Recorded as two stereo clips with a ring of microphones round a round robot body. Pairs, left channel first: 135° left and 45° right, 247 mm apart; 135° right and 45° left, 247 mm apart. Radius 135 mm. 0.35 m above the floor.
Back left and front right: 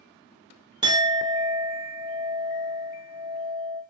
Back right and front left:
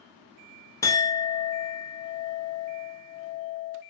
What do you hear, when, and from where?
0.8 s a clink: 80° right, 0.5 m